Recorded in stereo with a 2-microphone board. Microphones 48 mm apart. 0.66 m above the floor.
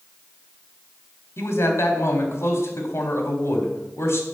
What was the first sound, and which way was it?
A man speaking, 65° left (ahead or behind).